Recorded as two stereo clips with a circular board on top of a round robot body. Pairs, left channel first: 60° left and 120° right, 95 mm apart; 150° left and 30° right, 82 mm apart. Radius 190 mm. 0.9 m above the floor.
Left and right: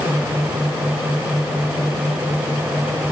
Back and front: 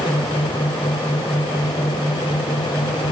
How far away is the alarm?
I don't hear an alarm.